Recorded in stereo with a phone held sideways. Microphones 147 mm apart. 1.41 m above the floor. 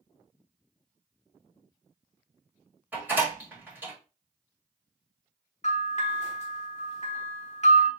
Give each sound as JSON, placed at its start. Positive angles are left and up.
{"t": 2.9, "sound": "a door slam", "side_deg": -15, "distance_m": 2.5}
{"t": 5.6, "sound": "a bell", "side_deg": 50, "distance_m": 1.1}